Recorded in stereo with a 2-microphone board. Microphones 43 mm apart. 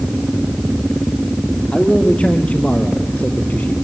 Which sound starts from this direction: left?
A man speaking, at 1.7 s.